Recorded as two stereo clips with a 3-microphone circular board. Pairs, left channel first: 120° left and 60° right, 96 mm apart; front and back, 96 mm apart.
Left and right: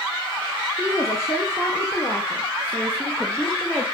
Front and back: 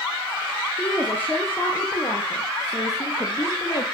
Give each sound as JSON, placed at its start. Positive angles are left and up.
{"t": 0.8, "sound": "a woman speaking", "azimuth_deg": 70, "distance_m": 2.5}